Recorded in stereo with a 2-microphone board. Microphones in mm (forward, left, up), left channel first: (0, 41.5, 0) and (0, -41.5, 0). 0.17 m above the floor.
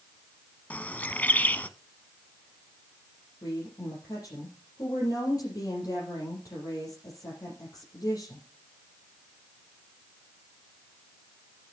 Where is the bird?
20° left (ahead or behind), 0.6 m.